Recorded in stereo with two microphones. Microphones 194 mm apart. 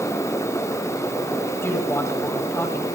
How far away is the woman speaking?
About 2 m.